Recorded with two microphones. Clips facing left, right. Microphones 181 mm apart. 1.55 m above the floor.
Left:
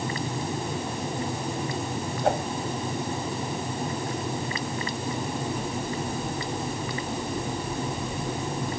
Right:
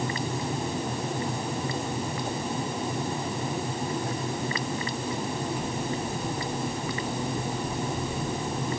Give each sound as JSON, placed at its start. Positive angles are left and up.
{"t": 2.2, "sound": "a whoosh", "side_deg": 85}